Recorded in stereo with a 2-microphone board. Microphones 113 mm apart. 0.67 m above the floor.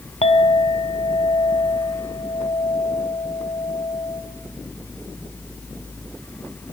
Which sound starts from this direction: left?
A clink, at 0.2 s.